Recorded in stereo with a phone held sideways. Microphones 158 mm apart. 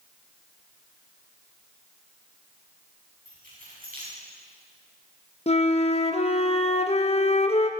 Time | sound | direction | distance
3.2 | keys jangling | 70° right (ahead or behind) | 7 m
5.5 | a flute | 45° left (ahead or behind) | 0.9 m